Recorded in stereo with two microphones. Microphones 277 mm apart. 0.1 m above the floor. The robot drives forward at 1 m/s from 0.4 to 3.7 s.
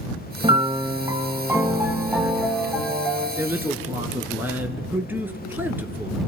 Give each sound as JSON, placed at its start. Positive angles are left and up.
{"t": 0.4, "sound": "a piano", "side_deg": -20, "distance_m": 0.5}
{"t": 3.4, "sound": "a man speaking", "side_deg": -10, "distance_m": 1.1}